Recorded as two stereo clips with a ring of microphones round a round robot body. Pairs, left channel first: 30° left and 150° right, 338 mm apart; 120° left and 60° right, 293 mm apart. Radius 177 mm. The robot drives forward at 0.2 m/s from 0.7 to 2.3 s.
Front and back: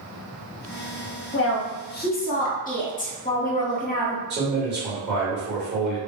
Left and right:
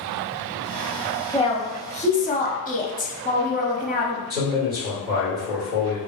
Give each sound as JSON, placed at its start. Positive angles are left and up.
{"t": 1.3, "sound": "a woman speaking", "azimuth_deg": 55, "distance_m": 0.8}
{"t": 4.3, "sound": "a man speaking", "azimuth_deg": 165, "distance_m": 1.8}